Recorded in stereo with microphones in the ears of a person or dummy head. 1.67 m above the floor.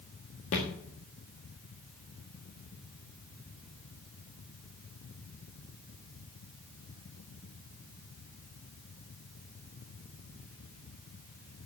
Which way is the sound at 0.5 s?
30° left (ahead or behind).